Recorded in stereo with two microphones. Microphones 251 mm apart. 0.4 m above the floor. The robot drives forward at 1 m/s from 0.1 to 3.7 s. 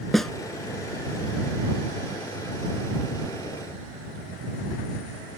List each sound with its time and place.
0.1 s a snare drum: centre (ahead or behind)